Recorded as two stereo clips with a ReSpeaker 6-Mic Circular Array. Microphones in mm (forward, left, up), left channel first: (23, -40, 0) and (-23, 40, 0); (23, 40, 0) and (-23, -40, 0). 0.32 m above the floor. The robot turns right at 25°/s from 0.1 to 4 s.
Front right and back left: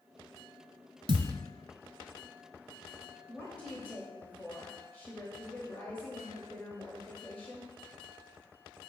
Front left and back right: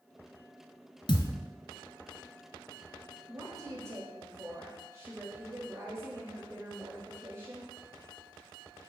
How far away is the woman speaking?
About 1.3 m.